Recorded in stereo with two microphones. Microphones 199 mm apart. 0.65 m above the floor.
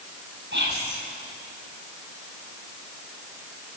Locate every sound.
0.5 s whispering: 60° right (ahead or behind), 4.5 m